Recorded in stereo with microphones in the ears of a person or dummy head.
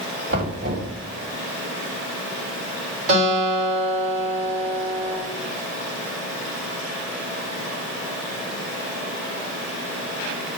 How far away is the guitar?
About 4.5 m.